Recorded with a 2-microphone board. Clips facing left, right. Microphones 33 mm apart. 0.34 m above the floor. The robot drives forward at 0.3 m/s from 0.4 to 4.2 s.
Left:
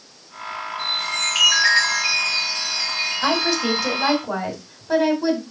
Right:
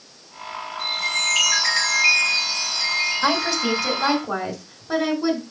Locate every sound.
0.8 s a chime: 45° left (ahead or behind), 3.5 m; by 4.2 s 35° left (ahead or behind), 4 m
3.2 s a woman speaking: 10° left (ahead or behind), 2.5 m